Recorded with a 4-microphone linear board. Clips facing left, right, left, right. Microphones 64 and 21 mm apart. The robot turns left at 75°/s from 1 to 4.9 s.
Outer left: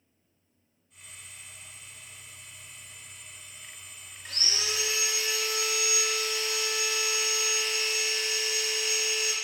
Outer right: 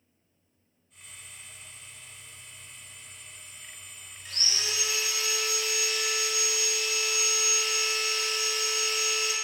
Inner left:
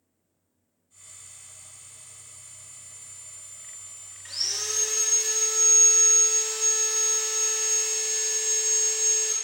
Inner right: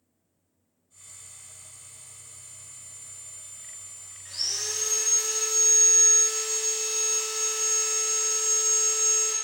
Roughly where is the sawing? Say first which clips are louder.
Outer left 1 dB, inner left 1 dB; left.